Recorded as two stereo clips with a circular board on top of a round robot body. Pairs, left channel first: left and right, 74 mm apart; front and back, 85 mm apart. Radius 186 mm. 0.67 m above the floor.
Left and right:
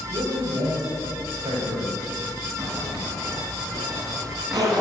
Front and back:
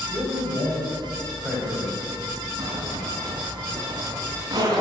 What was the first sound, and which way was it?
A man speaking, 105° right.